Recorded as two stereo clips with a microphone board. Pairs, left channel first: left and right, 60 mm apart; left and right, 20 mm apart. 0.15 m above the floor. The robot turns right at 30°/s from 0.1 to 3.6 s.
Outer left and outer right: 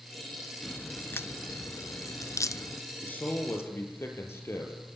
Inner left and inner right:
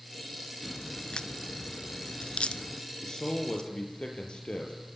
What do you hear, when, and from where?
0.6 s a crack: 30° left (ahead or behind), 0.6 m; by 2.8 s 60° left (ahead or behind), 0.6 m
3.0 s a man speaking: 30° left (ahead or behind), 4 m; by 4.7 s 45° left (ahead or behind), 4 m